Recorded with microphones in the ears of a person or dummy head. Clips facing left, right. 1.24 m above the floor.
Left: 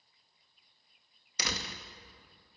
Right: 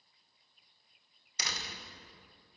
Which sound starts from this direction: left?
A door slam, at 1.4 s.